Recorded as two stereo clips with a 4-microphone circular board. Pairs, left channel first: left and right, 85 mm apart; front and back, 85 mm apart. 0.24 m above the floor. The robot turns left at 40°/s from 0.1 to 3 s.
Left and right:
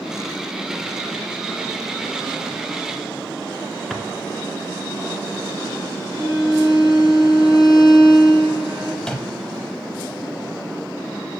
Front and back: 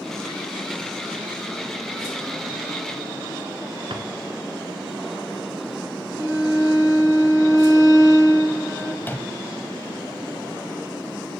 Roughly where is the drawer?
Behind.